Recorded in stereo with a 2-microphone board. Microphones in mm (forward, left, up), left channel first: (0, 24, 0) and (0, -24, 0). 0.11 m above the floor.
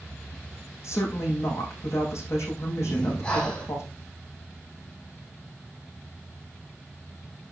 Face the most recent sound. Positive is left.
turn(degrees=25)  # may be behind; listen again after turning